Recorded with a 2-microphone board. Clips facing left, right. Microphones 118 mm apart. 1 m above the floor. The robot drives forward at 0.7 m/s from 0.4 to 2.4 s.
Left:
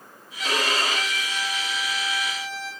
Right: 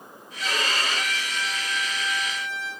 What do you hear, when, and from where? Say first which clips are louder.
0.4 s a violin: left 3 dB; 75° left (ahead or behind), 2.5 m; by 2.7 s 65° left (ahead or behind), 2.5 m